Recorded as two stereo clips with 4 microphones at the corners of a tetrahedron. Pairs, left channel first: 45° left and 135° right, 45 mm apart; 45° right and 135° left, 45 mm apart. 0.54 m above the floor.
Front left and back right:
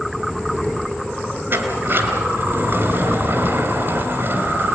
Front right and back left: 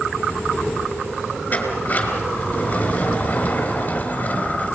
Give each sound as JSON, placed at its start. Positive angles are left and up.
{"t": 1.5, "sound": "a sliding door", "azimuth_deg": -100, "distance_m": 3.5}